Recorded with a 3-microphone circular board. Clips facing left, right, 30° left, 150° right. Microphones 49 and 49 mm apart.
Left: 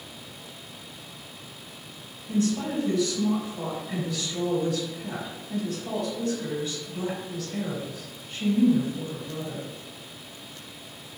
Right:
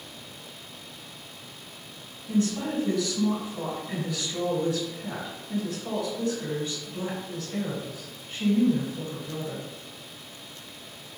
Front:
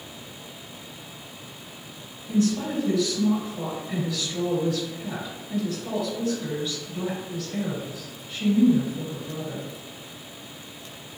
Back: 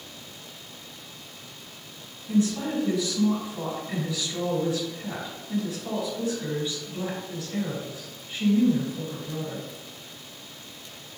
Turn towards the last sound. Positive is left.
turn(degrees=-110)